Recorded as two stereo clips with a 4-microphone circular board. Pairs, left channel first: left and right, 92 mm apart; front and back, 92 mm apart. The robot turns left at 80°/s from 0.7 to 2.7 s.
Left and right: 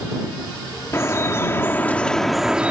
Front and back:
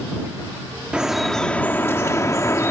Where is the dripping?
115° left; by 2.7 s 30° right.